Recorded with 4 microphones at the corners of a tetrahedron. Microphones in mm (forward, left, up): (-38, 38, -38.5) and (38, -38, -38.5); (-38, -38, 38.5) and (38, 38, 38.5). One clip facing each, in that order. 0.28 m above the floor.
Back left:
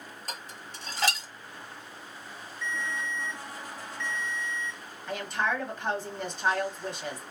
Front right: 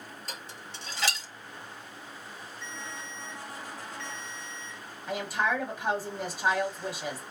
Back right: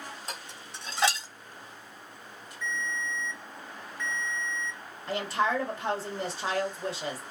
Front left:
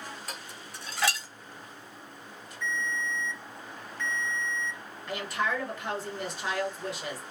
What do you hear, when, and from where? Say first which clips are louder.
0.3 s dishes clattering: back left 3 dB, even; 165° left, 1.2 m
2.6 s a ringtone: back left 9 dB, front left 1 dB; 55° right, 1.4 m
5.1 s a woman speaking: front right 1 dB, back right 3 dB; 120° right, 1.2 m